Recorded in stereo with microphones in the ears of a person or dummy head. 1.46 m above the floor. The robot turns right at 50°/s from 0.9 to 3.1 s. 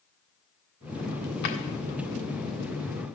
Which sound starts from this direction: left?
A drawer, at 1.4 s.